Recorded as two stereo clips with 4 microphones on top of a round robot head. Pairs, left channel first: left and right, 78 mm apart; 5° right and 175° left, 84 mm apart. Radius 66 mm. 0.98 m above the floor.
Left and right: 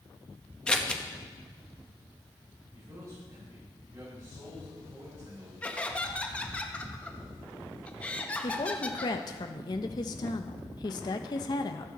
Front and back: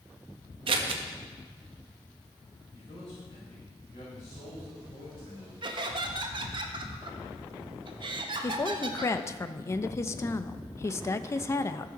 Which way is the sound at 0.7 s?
170° left.